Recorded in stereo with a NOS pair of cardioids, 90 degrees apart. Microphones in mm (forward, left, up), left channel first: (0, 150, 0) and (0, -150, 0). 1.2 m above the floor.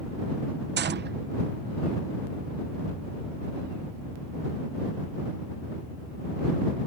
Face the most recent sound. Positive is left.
turn(degrees=-40)